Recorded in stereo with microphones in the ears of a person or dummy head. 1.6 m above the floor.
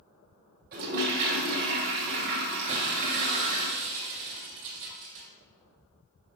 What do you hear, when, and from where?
0.7 s a toilet flushing: 50° right (ahead or behind), 1.4 m
2.7 s breaking glass: 50° right (ahead or behind), 2 m